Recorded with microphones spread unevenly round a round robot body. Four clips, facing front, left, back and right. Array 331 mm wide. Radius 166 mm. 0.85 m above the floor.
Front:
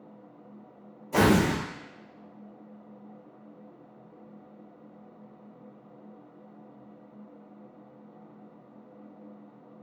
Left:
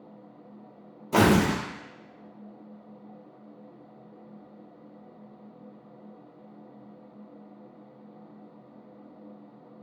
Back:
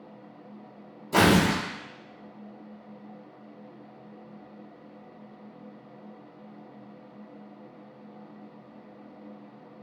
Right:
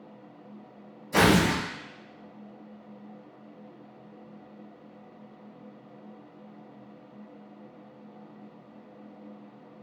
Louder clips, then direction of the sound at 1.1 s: Left 1 dB, back 1 dB; 120° left.